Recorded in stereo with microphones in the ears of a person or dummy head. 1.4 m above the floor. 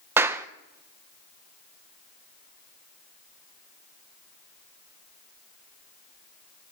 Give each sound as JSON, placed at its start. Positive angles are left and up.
{"t": 0.2, "sound": "a clap", "side_deg": -10, "distance_m": 0.7}